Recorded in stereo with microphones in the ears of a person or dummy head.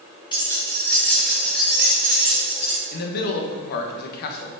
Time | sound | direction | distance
0.3 | keys jangling | 25° left (ahead or behind) | 0.8 m
2.9 | a man speaking | 55° left (ahead or behind) | 1.0 m